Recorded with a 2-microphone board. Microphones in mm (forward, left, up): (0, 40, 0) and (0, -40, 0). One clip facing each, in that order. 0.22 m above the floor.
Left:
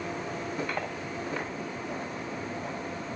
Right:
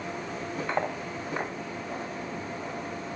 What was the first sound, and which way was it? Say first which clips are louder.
Cutlery clinking: right 4 dB; 25° right (ahead or behind).